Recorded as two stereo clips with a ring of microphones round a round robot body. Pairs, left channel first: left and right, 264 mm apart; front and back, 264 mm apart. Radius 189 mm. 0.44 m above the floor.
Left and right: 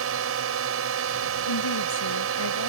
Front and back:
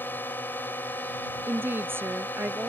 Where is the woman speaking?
100° left.